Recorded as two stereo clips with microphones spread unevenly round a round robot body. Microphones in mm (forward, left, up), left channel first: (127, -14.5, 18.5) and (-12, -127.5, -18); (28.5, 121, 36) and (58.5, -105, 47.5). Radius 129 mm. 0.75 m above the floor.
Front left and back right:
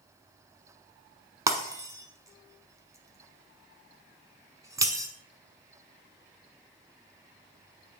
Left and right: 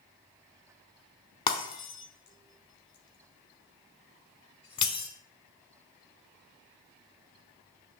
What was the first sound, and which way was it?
Breaking glass, 140° left.